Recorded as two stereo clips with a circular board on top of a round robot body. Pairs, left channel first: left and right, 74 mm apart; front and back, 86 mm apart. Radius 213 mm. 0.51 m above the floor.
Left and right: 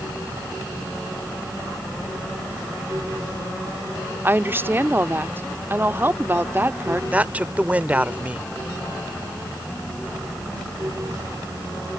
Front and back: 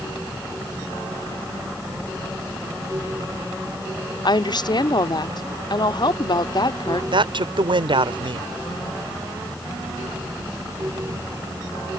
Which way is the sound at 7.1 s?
160° right.